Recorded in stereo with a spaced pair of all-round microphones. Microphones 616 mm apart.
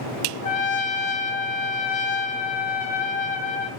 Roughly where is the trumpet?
Left.